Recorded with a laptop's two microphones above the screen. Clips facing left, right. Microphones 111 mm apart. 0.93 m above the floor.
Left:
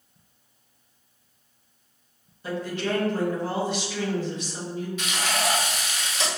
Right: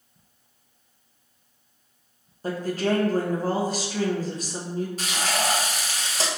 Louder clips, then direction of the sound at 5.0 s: Left 2 dB; 35° right (ahead or behind).